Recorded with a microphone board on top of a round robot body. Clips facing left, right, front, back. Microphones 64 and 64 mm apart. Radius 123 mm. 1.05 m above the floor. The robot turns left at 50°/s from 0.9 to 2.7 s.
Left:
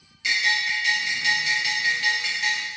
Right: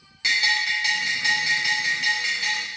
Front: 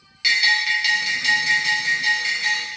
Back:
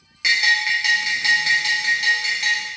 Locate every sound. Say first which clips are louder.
0.2 s a bell: even, back 1 dB; 115° right, 0.9 m; by 2.7 s 155° left, 0.9 m